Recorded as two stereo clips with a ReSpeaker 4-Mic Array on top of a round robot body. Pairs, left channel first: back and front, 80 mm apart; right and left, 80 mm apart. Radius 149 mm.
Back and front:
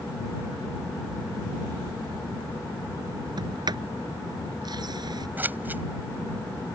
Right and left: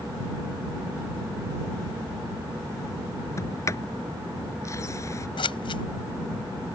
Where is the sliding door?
35° right.